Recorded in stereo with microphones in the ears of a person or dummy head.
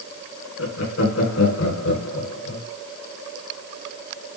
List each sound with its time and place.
0.6 s laughter: 65° left (ahead or behind), 4.5 m